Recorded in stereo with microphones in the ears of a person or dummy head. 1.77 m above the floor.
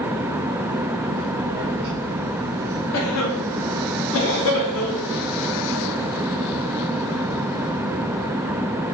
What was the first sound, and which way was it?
A child speaking, 5° right (ahead or behind).